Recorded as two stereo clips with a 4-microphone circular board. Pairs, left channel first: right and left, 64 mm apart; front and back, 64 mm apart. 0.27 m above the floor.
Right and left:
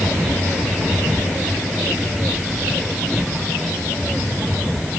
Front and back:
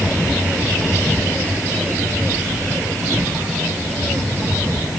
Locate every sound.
Only background noise.